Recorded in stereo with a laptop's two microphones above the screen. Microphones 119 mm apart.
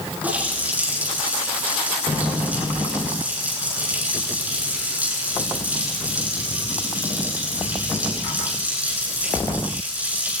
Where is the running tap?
15° right (ahead or behind), 9 m.